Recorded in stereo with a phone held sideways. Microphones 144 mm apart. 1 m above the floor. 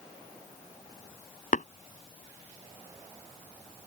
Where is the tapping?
65° left (ahead or behind).